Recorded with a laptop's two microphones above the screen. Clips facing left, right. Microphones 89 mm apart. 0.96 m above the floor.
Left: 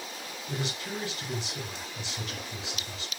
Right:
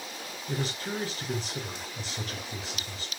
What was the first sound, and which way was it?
A man speaking, 40° right (ahead or behind).